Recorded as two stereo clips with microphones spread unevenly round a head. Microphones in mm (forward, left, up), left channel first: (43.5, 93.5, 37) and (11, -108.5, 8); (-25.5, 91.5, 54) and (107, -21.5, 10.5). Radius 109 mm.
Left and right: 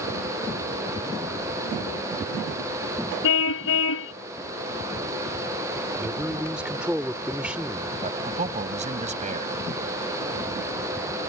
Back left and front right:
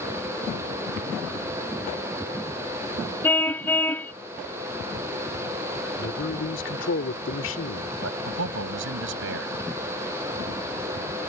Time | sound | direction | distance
3.2 | a car horn | 65° left | ?
6.0 | a man speaking | 175° left | ?
8.0 | a man speaking | 40° right | ?